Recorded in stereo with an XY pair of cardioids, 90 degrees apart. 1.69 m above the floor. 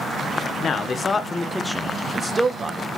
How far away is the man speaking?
About 0.8 m.